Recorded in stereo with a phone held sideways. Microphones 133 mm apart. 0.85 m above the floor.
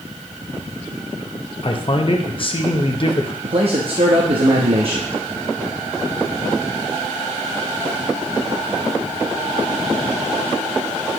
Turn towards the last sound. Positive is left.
turn(degrees=-45)  # may be behind; listen again after turning